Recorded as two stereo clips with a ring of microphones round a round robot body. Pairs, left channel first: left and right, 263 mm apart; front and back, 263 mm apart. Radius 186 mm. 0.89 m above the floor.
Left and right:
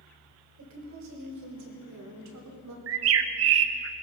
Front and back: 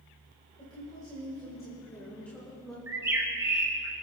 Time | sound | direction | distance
0.6 | a woman speaking | 80° right | 4 m
2.9 | a bird | 100° right | 0.6 m